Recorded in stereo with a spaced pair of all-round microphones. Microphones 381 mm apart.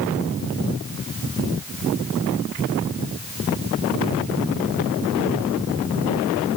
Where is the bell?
No bell in this recording.